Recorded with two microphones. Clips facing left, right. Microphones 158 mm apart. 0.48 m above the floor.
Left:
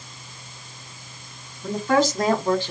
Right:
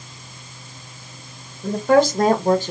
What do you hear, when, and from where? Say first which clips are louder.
1.6 s a woman speaking: right 5 dB; 65° right (ahead or behind), 1.7 m; by 2.7 s 40° right (ahead or behind), 1.1 m